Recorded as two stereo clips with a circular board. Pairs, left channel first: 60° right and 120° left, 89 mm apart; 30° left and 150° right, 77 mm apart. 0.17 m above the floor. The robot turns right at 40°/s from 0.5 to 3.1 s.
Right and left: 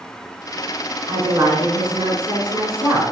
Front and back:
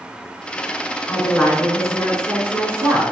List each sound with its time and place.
1.1 s a woman speaking: 90° left, 1.4 m; by 3.0 s 170° left, 1.4 m